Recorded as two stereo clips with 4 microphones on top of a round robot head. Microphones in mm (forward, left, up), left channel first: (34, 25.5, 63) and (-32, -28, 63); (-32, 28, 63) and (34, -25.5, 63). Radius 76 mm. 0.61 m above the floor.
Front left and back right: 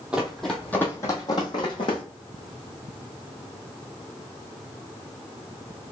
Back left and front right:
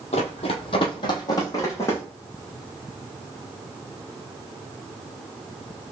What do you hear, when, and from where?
0.1 s running footsteps: 140° left, 1.0 m; by 2.0 s 75° left, 1.7 m